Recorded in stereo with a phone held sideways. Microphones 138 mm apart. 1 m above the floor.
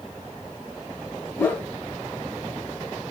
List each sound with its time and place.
1.4 s a whoosh: 15° left (ahead or behind), 0.6 m